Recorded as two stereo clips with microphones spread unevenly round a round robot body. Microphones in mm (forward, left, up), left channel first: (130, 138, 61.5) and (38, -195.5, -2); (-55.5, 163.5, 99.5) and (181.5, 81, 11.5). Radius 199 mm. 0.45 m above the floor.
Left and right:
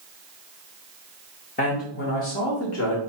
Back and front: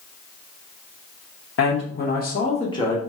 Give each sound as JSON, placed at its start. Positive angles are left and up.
{"t": 1.6, "sound": "a man speaking", "azimuth_deg": 140, "distance_m": 1.0}